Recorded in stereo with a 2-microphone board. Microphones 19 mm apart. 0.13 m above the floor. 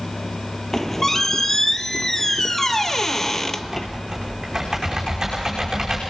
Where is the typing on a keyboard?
30° right (ahead or behind), 5.5 m.